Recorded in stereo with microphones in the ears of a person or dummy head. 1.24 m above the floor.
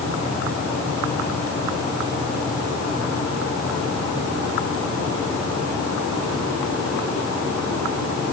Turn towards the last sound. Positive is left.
No sound to turn to.